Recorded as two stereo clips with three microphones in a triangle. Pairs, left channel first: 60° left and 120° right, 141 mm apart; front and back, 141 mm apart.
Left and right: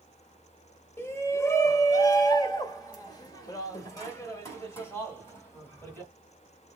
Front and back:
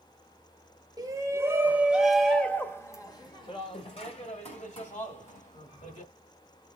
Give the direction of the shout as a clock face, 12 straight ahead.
8 o'clock.